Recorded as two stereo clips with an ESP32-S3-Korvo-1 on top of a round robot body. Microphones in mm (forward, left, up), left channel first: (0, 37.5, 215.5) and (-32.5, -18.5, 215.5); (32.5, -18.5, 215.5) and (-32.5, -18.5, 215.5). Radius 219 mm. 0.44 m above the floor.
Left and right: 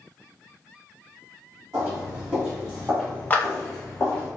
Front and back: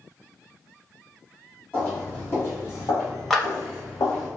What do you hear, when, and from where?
1.7 s footsteps: 70° right, 1.1 m; by 4.3 s 10° right, 1.7 m
3.3 s a clap: 75° left, 1.1 m